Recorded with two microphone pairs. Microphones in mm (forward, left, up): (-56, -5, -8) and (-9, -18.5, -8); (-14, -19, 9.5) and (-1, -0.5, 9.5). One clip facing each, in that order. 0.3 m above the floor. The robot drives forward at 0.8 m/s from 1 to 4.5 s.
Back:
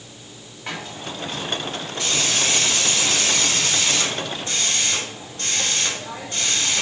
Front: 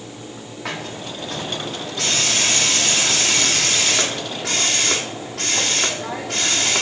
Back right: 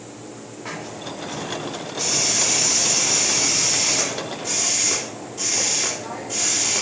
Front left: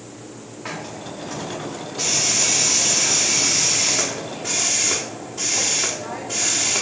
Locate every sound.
0.7 s a hiss: 15° right, 7.5 m; by 6.8 s 20° right, 4.5 m